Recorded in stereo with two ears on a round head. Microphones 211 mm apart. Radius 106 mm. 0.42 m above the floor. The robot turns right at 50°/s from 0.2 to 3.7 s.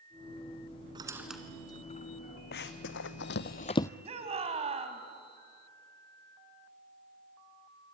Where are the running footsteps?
45° left (ahead or behind), 1.4 m; by 3.9 s 10° left (ahead or behind), 0.6 m.